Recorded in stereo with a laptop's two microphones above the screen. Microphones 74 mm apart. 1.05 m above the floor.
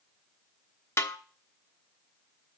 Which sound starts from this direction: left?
A snare drum, at 1.0 s.